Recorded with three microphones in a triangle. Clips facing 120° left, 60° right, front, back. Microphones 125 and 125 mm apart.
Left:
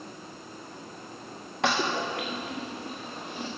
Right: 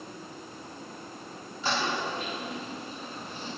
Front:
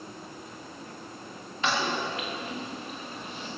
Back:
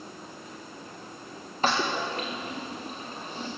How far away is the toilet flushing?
About 3 m.